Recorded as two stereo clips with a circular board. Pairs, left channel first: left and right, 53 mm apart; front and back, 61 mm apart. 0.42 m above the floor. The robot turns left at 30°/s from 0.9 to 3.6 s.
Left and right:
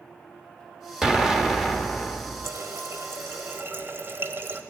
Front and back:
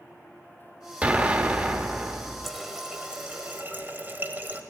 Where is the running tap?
90° right, 1.1 m; by 4.6 s 125° right, 1.1 m.